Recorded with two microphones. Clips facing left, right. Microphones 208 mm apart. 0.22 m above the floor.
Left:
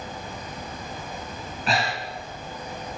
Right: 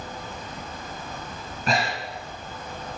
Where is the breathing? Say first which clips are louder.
Right 1 dB; 45° right (ahead or behind), 2.5 m.